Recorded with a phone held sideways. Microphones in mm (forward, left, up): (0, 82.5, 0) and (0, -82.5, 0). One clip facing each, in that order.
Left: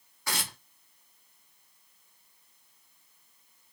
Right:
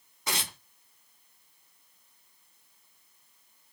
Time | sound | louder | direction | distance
0.3 | tearing paper | right 1 dB | 20° right (ahead or behind) | 0.8 m